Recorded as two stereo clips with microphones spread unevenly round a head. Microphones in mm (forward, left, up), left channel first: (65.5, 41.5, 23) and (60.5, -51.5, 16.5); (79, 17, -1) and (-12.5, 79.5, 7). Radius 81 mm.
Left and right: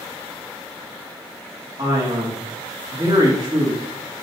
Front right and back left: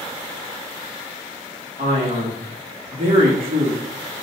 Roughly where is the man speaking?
Behind right.